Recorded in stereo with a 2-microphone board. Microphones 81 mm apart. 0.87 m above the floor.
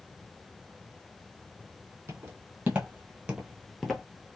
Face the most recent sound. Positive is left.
turn(degrees=5)  # may be behind; listen again after turning